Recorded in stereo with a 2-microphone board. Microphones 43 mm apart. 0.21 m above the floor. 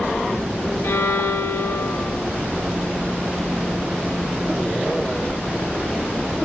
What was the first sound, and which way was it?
A violin, 75° left (ahead or behind).